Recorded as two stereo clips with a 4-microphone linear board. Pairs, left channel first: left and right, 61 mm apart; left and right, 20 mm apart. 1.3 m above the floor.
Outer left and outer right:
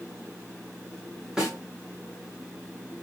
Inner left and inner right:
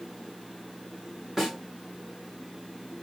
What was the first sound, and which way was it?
A snare drum, 15° right (ahead or behind).